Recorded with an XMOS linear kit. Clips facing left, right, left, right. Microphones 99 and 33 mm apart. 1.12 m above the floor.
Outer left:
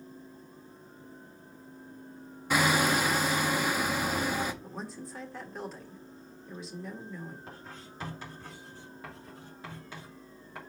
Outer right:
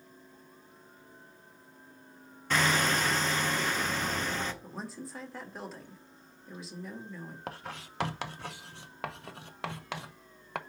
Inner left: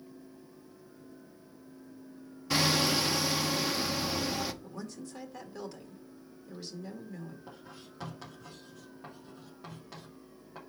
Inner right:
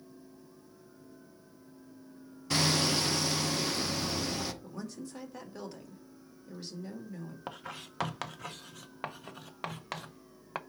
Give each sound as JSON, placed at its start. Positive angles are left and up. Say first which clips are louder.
{"t": 2.5, "sound": "hammering", "louder": "outer left 2 dB, inner left 1 dB", "side_deg": 10, "distance_m": 0.8}
{"t": 4.6, "sound": "a woman speaking", "louder": "outer left 1 dB, inner right 1 dB", "side_deg": 0, "distance_m": 1.9}
{"t": 7.5, "sound": "writing", "louder": "outer right 5 dB, inner right 6 dB", "side_deg": -80, "distance_m": 0.6}